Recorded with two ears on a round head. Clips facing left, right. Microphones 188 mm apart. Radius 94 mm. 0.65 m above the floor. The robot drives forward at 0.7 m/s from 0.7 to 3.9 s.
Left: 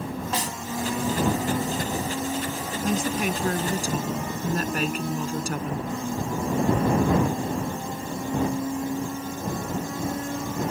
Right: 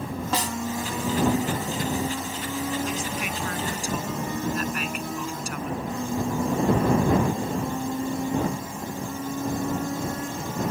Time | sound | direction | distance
0.3 | a snare drum | 55° right (ahead or behind) | ?
2.8 | a woman speaking | 35° left (ahead or behind) | ?